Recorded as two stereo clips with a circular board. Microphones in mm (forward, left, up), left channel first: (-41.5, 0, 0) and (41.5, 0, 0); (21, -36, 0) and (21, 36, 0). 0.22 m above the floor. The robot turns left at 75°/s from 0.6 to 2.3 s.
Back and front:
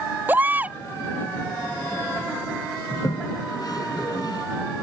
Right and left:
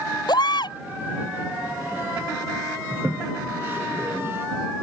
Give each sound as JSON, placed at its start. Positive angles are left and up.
{"t": 0.3, "sound": "a baby crying", "azimuth_deg": -70}
{"t": 2.9, "sound": "a toilet flushing", "azimuth_deg": 145}